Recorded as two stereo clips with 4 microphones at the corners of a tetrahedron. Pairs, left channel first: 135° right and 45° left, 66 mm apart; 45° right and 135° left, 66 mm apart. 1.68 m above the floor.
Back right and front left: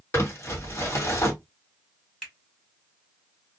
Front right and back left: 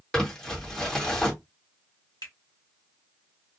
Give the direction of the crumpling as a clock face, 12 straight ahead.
4 o'clock.